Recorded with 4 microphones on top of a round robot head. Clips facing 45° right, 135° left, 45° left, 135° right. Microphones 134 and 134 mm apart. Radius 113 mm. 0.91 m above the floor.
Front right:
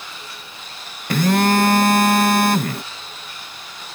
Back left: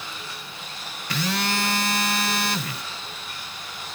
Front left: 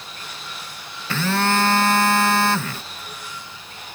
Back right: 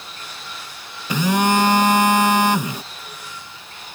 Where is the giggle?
I don't hear a giggle.